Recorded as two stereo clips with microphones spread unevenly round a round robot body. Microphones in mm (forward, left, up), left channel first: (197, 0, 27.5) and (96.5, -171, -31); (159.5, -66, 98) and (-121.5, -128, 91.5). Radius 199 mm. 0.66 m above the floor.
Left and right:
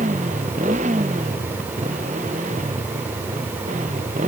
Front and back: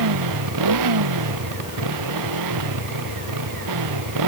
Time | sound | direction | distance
0.0 | a motorcycle | 165° left | ?